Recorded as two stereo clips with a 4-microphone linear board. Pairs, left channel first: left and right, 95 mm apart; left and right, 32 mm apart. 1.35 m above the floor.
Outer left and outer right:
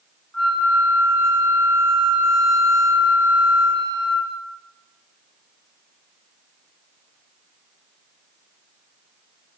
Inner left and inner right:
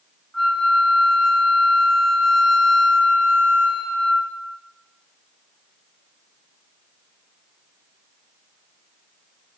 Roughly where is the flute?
Centre.